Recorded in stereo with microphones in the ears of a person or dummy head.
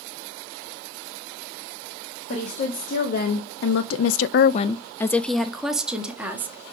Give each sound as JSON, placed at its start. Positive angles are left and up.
{"t": 2.3, "sound": "a woman speaking", "side_deg": 45, "distance_m": 1.7}